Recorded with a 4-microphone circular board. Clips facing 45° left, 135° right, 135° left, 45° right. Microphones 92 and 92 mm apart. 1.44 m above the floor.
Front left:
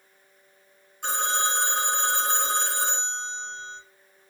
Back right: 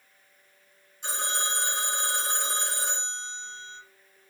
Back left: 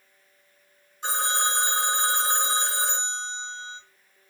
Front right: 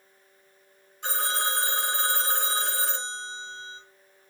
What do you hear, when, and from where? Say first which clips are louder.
1.0 s a phone ringing: front left 6 dB, back left 3 dB; 75° left, 2.5 m